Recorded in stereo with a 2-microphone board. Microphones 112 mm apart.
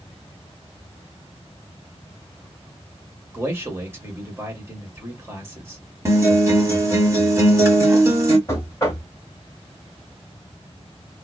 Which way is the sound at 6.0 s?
25° right (ahead or behind).